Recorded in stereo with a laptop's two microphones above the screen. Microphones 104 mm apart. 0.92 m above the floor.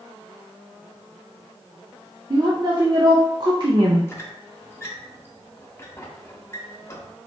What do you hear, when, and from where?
2.3 s a woman speaking: 40° right (ahead or behind), 0.5 m
4.1 s a squeak: 20° left (ahead or behind), 0.9 m